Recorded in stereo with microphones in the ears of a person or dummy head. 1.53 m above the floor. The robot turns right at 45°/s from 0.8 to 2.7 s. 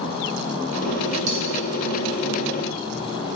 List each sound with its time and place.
1.3 s cutlery clinking: 45° right (ahead or behind), 3.5 m; by 1.4 s 35° right (ahead or behind), 3.5 m